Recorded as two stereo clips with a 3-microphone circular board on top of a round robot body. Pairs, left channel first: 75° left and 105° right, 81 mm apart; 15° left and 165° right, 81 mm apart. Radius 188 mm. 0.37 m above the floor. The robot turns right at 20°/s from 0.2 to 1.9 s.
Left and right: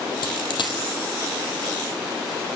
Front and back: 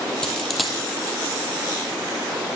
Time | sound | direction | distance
0.2 | a dropped coin | 95° left | 2.5 m